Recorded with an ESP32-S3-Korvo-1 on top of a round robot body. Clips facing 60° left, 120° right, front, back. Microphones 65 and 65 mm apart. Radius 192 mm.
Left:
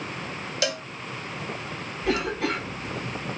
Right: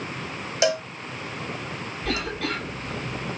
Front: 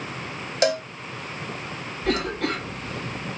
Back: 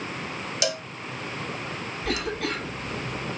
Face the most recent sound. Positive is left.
turn(degrees=-5)